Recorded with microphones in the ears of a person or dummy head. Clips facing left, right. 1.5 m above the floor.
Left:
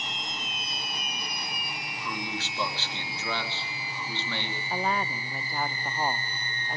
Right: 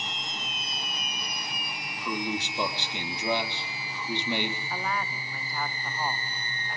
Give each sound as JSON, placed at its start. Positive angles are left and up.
{"t": 2.0, "sound": "a man speaking", "side_deg": -15, "distance_m": 3.5}
{"t": 4.7, "sound": "a woman speaking", "side_deg": 25, "distance_m": 1.2}